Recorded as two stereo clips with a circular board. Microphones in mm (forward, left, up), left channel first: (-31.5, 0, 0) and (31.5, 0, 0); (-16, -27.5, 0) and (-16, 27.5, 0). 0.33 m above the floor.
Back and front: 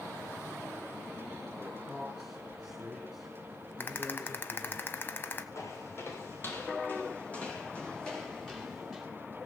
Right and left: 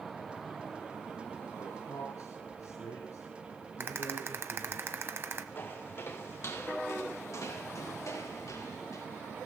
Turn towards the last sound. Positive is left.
turn(degrees=-90)